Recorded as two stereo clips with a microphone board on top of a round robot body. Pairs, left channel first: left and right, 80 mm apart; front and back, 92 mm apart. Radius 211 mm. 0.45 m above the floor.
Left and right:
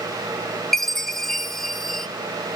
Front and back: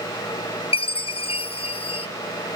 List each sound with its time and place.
0.7 s a chime: 5° left, 0.7 m